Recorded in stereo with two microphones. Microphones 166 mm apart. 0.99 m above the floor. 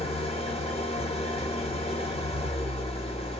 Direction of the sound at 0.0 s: 40° left (ahead or behind).